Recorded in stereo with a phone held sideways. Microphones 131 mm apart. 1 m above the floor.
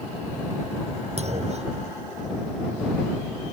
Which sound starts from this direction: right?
A clunk, at 1.2 s.